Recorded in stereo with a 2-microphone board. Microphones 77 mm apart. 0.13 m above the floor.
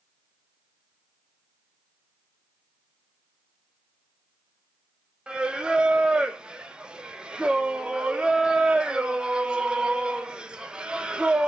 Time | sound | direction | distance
5.3 | singing | 10° right (ahead or behind) | 0.8 m